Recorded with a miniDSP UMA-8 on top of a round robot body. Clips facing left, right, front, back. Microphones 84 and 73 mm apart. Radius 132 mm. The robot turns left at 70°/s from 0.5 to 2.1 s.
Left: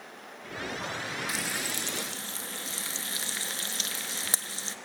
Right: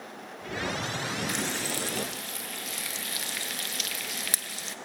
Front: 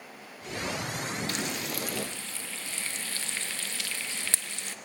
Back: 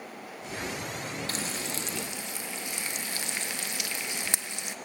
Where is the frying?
175° left, 1.0 m; by 4.8 s 120° left, 1.0 m.